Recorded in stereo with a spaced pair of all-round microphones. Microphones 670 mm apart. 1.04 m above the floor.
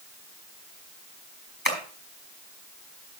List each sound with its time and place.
1.6 s tapping: 15° left (ahead or behind), 4.5 m